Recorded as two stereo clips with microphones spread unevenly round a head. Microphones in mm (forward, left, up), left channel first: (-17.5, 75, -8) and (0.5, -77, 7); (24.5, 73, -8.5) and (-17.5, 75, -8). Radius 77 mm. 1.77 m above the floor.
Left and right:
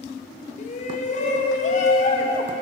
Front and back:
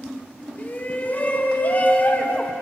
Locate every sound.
0.6 s a shout: 50° left, 1.5 m